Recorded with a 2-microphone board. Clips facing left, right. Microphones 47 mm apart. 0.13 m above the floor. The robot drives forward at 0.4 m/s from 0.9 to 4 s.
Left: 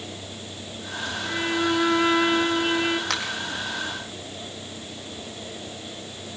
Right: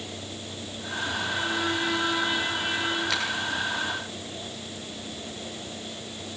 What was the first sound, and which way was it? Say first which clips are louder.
A violin: left 5 dB; 50° left (ahead or behind).